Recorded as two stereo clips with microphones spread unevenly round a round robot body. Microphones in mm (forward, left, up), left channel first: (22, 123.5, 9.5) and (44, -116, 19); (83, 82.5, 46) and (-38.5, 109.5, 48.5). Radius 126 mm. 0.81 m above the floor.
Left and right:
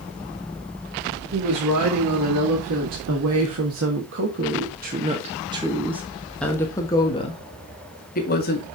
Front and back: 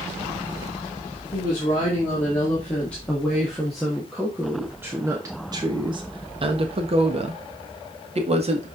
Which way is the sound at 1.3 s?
85° right.